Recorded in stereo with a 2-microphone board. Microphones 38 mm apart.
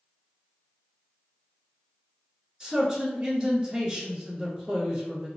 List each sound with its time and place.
2.6 s a man speaking: 20° right (ahead or behind), 1.4 m